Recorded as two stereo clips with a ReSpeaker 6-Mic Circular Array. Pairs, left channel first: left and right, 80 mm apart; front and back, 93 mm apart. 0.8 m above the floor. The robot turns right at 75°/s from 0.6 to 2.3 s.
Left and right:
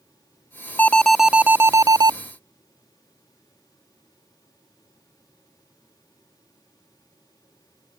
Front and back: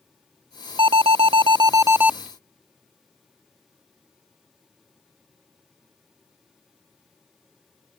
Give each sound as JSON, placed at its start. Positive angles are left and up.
{"t": 0.8, "sound": "an alarm", "azimuth_deg": 155}